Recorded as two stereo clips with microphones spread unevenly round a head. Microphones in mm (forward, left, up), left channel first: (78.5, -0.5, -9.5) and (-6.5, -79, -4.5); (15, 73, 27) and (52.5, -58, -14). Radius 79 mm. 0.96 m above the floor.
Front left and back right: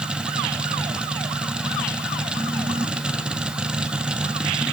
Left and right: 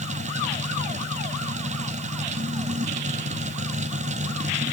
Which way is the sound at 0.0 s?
55° right.